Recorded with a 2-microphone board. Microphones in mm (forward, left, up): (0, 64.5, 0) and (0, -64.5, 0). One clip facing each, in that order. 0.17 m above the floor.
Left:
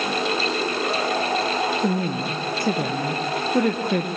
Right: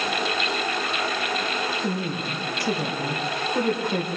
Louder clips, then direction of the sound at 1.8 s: Left 4 dB; 55° left (ahead or behind).